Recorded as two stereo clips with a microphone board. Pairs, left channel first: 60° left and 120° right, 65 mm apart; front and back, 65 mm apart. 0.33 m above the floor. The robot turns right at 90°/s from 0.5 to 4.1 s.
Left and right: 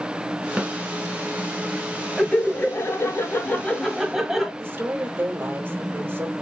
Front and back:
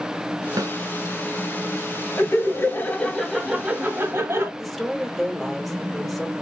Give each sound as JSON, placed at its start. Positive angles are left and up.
{"t": 0.6, "sound": "a snare drum", "azimuth_deg": 165, "distance_m": 0.9}
{"t": 2.2, "sound": "laughter", "azimuth_deg": -20, "distance_m": 1.6}
{"t": 4.6, "sound": "a woman speaking", "azimuth_deg": -90, "distance_m": 1.1}